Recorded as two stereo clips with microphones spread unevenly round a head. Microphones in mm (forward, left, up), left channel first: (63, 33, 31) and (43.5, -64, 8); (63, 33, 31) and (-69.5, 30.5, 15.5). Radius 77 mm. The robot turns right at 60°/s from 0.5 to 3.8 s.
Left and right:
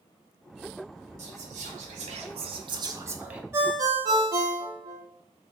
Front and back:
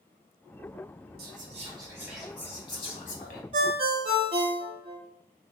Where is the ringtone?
175° right, 0.5 m; by 5.0 s 155° right, 0.5 m.